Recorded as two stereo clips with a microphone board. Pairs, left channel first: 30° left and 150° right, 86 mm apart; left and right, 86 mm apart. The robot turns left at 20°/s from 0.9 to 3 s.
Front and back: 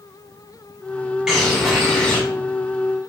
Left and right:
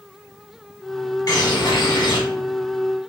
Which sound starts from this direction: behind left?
A bird, at 1.3 s.